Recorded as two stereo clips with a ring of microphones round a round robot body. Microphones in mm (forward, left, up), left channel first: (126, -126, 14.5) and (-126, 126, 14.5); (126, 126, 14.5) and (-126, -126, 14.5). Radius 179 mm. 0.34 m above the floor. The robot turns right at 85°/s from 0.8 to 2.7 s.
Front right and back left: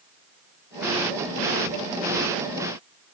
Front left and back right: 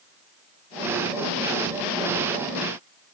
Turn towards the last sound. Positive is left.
No sound to turn to.